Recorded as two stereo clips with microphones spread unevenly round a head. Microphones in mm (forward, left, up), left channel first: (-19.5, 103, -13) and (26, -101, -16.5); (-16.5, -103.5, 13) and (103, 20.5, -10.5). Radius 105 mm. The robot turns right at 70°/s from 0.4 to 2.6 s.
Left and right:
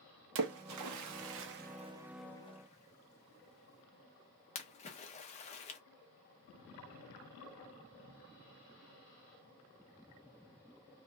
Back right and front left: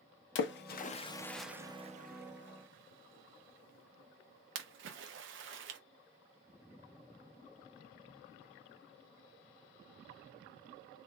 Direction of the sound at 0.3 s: 115° right.